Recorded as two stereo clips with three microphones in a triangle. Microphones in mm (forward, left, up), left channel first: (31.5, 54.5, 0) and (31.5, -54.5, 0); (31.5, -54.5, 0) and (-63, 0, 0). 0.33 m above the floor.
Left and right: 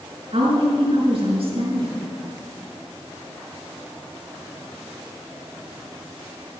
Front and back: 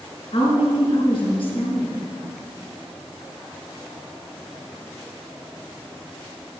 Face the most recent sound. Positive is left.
turn(degrees=-65)